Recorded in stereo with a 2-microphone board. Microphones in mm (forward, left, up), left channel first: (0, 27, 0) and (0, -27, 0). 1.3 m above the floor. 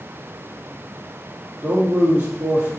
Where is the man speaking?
30° right (ahead or behind), 1.2 m.